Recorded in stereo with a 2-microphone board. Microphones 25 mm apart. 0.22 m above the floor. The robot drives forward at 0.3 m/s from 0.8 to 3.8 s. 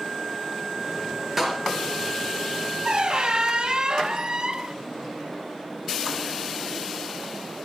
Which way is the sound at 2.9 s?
40° right (ahead or behind).